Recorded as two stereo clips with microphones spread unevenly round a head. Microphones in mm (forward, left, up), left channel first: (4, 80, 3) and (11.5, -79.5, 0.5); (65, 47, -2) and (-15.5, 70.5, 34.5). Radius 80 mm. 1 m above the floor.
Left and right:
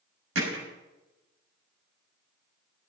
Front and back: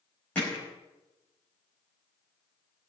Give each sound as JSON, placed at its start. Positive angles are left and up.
{"t": 0.3, "sound": "hammering", "azimuth_deg": -95, "distance_m": 5.5}